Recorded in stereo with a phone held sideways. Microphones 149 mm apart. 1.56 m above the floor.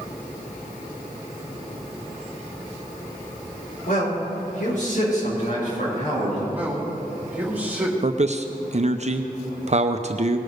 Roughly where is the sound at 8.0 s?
Right.